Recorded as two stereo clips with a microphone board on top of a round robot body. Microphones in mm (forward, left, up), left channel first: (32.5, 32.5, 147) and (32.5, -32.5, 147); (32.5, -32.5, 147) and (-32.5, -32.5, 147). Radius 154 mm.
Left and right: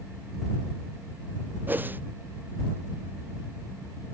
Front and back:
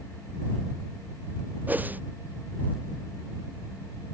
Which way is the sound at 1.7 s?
135° right.